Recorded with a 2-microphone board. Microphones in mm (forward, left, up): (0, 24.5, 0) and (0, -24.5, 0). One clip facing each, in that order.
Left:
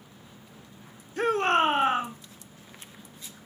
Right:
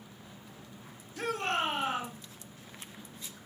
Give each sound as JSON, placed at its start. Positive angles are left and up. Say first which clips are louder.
{"t": 1.2, "sound": "a shout", "louder": "left 9 dB", "side_deg": 40, "distance_m": 1.6}